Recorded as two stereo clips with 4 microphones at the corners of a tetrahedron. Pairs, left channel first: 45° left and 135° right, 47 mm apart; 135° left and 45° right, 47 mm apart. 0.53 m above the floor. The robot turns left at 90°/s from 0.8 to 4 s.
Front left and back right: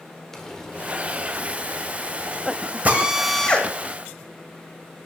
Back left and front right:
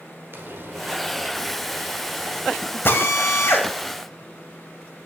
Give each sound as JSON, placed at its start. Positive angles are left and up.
{"t": 0.3, "sound": "frying", "azimuth_deg": -35, "distance_m": 1.6}
{"t": 2.9, "sound": "a drill", "azimuth_deg": 170, "distance_m": 1.4}